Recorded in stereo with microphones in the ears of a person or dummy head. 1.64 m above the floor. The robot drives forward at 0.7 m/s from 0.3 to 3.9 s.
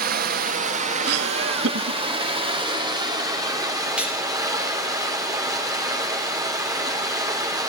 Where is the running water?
50° right (ahead or behind), 1.5 m; by 7.7 s 20° right (ahead or behind), 3.5 m.